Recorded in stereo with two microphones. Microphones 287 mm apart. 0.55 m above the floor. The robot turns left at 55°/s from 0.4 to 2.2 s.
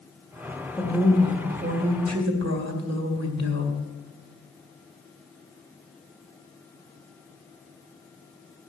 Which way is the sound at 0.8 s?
Straight ahead.